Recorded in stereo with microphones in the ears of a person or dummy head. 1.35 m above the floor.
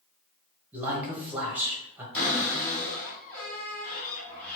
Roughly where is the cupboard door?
Centre.